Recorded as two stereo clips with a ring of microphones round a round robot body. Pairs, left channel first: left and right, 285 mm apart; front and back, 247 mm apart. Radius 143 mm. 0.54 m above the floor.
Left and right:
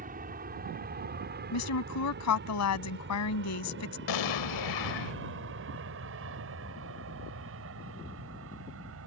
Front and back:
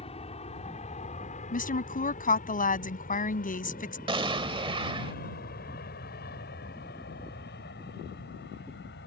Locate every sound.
0.0 s an aircraft: 50° right
1.5 s a woman speaking: 55° left
4.1 s an explosion: 110° left